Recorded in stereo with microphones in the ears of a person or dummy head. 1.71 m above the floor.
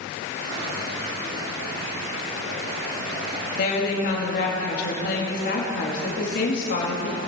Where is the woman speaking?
55° left (ahead or behind), 2.5 m.